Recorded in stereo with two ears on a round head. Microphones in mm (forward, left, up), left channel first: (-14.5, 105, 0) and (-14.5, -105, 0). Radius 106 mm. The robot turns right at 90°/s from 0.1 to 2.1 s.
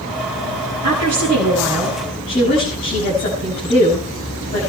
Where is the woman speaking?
80° right, 7 m; by 4.6 s 35° left, 7 m.